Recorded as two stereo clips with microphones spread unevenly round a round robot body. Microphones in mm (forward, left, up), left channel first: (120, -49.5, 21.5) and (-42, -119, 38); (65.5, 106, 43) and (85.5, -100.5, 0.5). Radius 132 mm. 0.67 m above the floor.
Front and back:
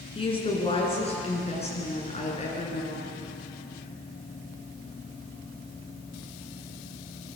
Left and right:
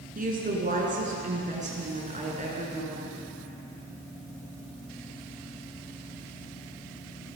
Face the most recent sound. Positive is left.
turn(degrees=-25)